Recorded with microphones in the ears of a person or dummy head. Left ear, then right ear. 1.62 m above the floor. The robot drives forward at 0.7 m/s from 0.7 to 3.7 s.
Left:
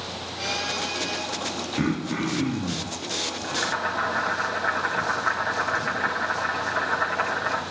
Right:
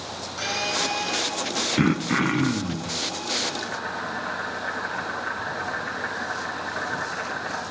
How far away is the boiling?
About 2 m.